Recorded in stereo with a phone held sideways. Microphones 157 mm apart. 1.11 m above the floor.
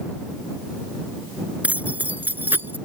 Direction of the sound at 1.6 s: 10° right (ahead or behind).